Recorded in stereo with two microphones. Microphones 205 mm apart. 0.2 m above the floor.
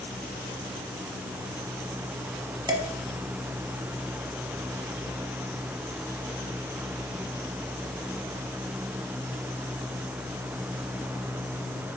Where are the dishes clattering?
20° right (ahead or behind), 1.0 m.